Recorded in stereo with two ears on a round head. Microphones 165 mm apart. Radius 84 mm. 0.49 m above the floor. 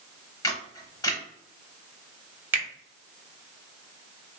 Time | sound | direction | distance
0.4 | a camera shutter | 20° left (ahead or behind) | 0.9 m
2.5 | a finger snap | 10° right (ahead or behind) | 0.8 m